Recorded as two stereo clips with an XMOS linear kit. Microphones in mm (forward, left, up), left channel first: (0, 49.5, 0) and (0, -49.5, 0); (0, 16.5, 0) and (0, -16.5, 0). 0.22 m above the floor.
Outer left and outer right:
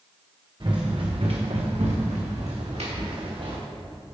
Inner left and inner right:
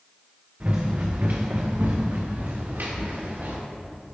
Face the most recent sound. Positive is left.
turn(degrees=-65)  # may be behind; listen again after turning